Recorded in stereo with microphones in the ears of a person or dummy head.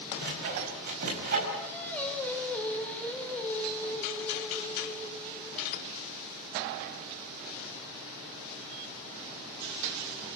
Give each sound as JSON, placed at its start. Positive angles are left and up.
{"t": 0.2, "sound": "sawing", "side_deg": -50, "distance_m": 5.5}
{"t": 1.6, "sound": "singing", "side_deg": 10, "distance_m": 3.5}